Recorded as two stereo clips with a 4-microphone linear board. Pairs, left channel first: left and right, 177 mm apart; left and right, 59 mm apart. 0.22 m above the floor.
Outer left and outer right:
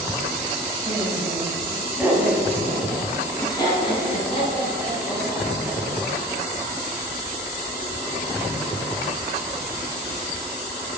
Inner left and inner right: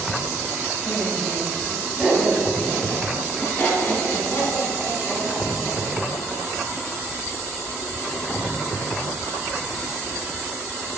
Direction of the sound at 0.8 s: 35° right (ahead or behind).